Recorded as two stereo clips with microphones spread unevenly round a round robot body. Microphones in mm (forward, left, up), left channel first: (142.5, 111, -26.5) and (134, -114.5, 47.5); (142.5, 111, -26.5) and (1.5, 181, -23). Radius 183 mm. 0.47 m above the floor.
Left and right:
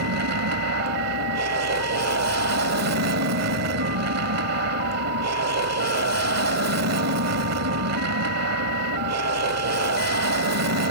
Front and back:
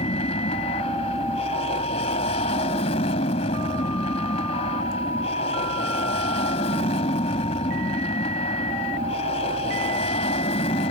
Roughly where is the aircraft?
Right.